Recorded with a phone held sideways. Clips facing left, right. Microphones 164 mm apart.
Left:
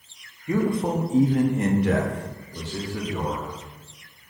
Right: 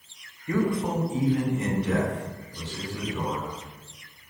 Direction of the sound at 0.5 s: 15° left (ahead or behind).